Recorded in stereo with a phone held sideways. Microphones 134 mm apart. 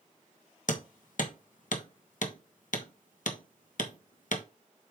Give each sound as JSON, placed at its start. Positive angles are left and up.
{"t": 0.7, "sound": "hammering", "side_deg": 70, "distance_m": 1.2}